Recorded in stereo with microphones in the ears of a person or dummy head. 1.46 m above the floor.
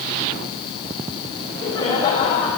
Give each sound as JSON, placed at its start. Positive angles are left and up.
{"t": 1.4, "sound": "laughter", "side_deg": 20, "distance_m": 5.5}